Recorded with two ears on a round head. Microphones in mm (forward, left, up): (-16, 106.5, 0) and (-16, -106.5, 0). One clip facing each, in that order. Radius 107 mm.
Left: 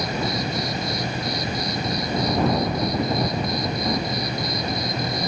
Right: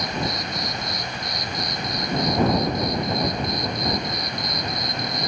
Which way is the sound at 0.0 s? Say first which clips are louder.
Left 3 dB; 25° left (ahead or behind).